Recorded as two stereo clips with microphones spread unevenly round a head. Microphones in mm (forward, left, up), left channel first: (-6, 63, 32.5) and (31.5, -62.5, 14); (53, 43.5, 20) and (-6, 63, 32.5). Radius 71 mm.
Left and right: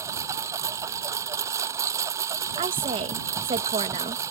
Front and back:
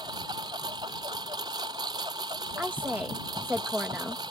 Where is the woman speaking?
120° right.